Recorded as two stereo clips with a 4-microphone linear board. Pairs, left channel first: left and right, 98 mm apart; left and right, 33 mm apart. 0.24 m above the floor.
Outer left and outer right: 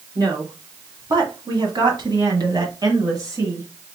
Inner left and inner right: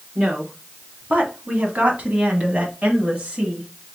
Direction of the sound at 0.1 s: 45° right (ahead or behind).